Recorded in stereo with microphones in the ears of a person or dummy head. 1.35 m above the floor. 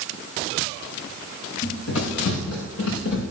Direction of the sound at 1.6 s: 75° left (ahead or behind).